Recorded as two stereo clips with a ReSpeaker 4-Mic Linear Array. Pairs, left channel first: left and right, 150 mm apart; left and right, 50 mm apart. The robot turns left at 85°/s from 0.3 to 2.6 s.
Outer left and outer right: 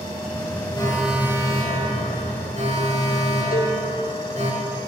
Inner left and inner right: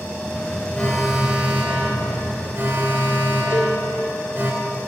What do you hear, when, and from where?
0.8 s an alarm: 30° left, 4.5 m; by 4.5 s 130° right, 4.5 m
3.5 s a cowbell: 70° left (ahead or behind), 4 m